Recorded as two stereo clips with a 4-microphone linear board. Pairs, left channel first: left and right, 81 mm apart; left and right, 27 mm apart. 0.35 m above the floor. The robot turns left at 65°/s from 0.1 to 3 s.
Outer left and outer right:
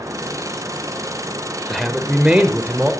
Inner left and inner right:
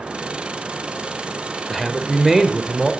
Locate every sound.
1.7 s a man speaking: centre (ahead or behind), 0.9 m; by 2.9 s 20° right (ahead or behind), 0.9 m